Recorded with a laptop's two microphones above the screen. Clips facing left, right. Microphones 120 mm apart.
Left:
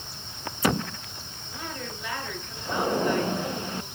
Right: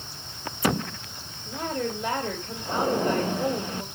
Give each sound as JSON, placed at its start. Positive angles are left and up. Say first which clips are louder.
{"t": 1.5, "sound": "a woman speaking", "louder": "right 8 dB", "side_deg": -50, "distance_m": 3.5}